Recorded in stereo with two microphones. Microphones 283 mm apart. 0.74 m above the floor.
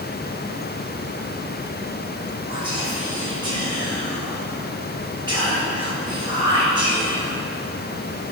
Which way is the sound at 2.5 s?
15° right (ahead or behind).